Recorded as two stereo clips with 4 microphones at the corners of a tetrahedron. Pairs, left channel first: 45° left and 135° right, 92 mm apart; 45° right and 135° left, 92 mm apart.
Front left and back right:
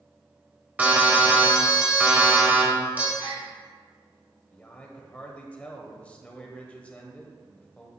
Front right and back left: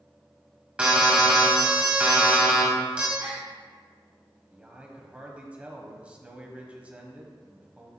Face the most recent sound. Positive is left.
turn(degrees=90)